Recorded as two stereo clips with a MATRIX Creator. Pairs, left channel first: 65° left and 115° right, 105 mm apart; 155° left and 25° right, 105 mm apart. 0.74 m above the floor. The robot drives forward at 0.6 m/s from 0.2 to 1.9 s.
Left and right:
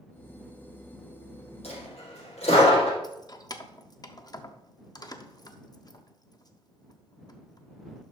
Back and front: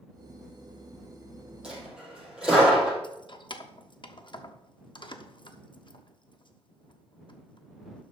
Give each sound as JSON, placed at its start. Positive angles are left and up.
{"t": 1.6, "sound": "a dropped coin", "azimuth_deg": 60, "distance_m": 4.5}
{"t": 3.0, "sound": "keys jangling", "azimuth_deg": 120, "distance_m": 0.7}